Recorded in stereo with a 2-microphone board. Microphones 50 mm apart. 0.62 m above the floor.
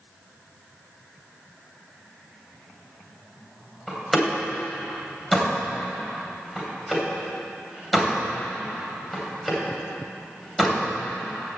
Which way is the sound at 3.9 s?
Centre (ahead or behind).